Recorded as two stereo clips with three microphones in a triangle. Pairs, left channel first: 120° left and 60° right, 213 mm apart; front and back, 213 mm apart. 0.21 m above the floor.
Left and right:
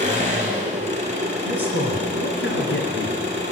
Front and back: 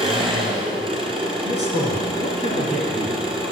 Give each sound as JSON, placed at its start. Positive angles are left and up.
{"t": 0.0, "sound": "an engine running", "azimuth_deg": -115, "distance_m": 1.6}
{"t": 1.4, "sound": "a man speaking", "azimuth_deg": 130, "distance_m": 2.5}